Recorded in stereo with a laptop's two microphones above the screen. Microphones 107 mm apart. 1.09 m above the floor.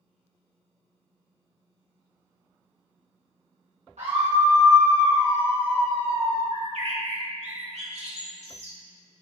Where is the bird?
70° right (ahead or behind), 1.3 m.